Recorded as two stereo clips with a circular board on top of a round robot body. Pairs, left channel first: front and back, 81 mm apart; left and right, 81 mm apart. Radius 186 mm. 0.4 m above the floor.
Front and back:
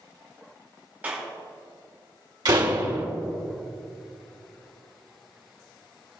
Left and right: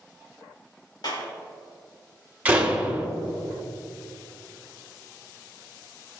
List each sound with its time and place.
1.0 s a clap: 110° left, 3.5 m
2.5 s a door slam: 160° right, 1.9 m